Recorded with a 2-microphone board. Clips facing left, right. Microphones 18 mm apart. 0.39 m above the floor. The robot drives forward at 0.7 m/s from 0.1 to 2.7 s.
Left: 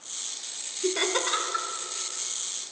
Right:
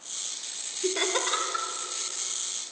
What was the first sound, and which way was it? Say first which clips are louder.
Laughter: left 1 dB; 5° left (ahead or behind).